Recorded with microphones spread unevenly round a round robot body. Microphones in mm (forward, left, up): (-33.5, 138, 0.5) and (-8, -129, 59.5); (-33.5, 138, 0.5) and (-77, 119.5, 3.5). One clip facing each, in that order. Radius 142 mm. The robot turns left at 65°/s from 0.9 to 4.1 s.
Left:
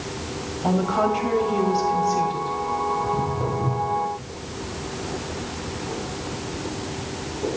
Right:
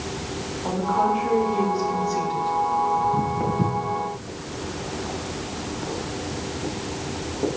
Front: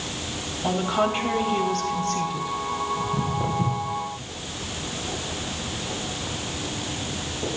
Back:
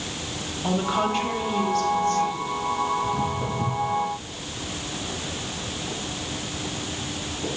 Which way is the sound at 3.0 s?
Straight ahead.